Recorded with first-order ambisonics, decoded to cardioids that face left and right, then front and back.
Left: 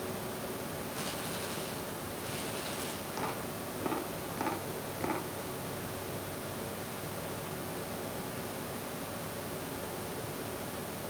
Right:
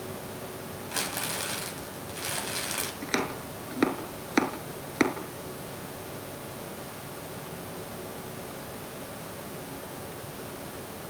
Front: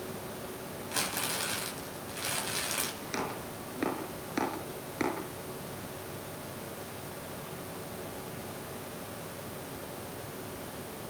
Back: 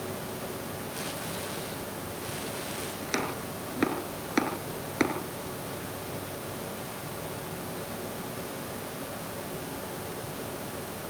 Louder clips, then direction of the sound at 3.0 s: Right 6 dB, back 4 dB; 115° right.